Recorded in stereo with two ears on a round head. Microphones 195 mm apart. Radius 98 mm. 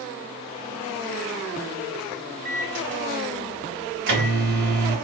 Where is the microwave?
55° right (ahead or behind), 3 m.